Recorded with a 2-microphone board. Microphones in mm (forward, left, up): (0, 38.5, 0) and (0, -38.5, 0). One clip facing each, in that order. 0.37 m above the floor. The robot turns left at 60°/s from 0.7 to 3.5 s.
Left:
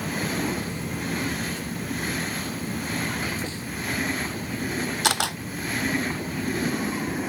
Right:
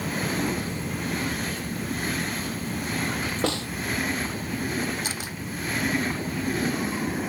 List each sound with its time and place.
3.4 s a snare drum: 80° right; by 3.7 s 75° right (ahead or behind)
5.0 s a camera shutter: 75° left (ahead or behind)